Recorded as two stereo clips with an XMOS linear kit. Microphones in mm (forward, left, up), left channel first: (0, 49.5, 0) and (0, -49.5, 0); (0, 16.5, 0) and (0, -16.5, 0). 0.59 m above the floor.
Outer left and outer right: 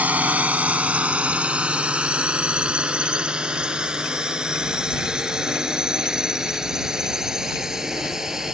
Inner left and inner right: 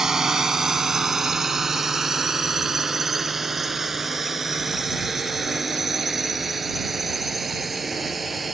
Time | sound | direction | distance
0.0 | a drone | 15° right (ahead or behind) | ?